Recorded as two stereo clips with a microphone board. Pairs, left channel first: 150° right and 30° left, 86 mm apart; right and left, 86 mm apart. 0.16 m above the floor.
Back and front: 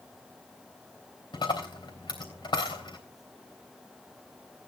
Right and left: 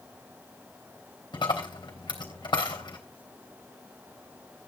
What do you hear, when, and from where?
1.3 s a dropped coin: 120° right, 3.5 m